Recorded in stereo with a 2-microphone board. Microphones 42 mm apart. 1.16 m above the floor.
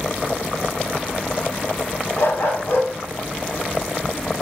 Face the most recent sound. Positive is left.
turn(degrees=70)  # may be behind; listen again after turning